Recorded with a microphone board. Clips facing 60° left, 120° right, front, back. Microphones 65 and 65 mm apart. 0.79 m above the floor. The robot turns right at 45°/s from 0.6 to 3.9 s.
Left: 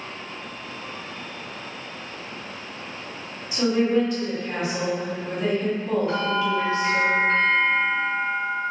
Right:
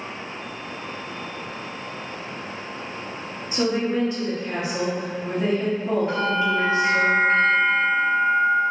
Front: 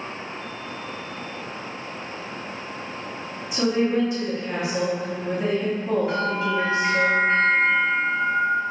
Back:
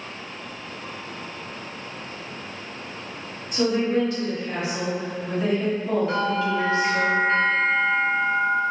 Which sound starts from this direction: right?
A woman speaking, at 3.5 s.